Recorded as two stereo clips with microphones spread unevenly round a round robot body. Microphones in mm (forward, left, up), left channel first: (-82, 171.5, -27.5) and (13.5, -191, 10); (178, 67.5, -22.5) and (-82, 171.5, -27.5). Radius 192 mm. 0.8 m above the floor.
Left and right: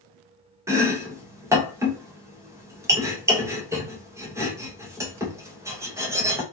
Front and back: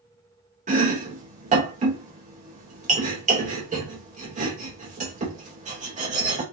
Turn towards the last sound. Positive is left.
turn(degrees=-160)